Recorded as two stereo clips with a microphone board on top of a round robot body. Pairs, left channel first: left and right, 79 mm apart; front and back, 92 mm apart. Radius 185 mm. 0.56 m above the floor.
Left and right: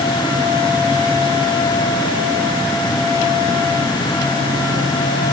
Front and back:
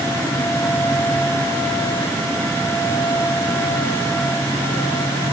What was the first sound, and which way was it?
Only background noise.